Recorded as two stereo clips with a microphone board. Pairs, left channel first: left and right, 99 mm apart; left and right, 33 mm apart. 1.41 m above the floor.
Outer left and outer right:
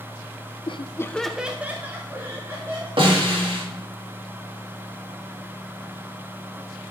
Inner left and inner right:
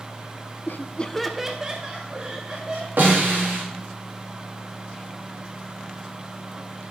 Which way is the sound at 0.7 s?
70° left (ahead or behind).